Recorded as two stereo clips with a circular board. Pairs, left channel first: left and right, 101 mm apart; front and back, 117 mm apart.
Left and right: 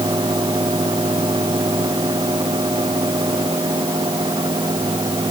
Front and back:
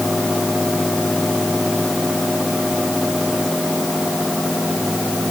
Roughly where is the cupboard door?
I don't hear a cupboard door.